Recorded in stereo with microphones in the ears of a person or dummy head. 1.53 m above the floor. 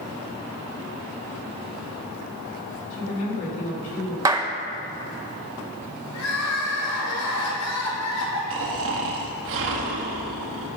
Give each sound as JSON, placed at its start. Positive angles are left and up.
{"t": 2.9, "sound": "a woman speaking", "side_deg": 40, "distance_m": 3.5}
{"t": 4.2, "sound": "a clap", "side_deg": -20, "distance_m": 0.7}
{"t": 6.1, "sound": "crying", "side_deg": 85, "distance_m": 3.5}
{"t": 8.5, "sound": "snoring", "side_deg": -70, "distance_m": 1.8}